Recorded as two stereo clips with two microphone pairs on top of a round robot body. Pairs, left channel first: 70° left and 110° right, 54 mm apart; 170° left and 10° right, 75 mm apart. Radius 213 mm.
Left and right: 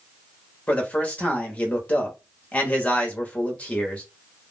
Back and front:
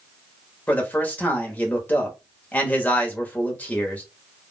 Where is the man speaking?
115° left, 1.2 m.